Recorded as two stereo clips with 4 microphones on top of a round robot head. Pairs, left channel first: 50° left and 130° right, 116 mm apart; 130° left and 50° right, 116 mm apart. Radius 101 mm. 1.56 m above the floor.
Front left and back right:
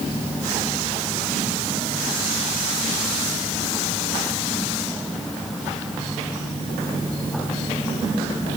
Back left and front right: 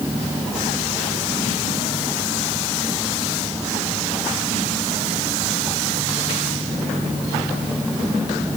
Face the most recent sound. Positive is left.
No sound to turn to.